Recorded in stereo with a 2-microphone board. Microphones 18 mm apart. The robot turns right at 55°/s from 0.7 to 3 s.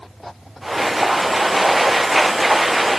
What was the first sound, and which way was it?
Only background noise.